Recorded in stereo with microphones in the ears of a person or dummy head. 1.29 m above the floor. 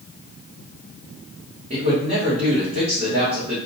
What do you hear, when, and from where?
1.7 s a man speaking: 30° right (ahead or behind), 1.0 m